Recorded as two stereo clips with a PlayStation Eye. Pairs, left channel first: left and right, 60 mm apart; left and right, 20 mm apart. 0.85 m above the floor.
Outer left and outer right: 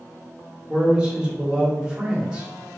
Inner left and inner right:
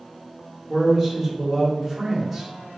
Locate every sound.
0.7 s a man speaking: 15° right (ahead or behind), 1.1 m